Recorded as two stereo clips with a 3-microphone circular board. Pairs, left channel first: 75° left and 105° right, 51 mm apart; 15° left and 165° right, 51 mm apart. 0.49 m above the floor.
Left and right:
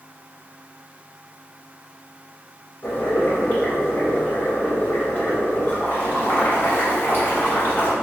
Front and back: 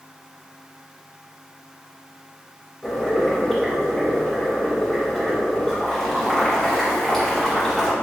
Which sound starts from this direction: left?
Boiling, at 2.8 s.